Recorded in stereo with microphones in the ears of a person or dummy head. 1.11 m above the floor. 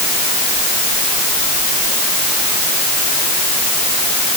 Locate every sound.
Only background noise.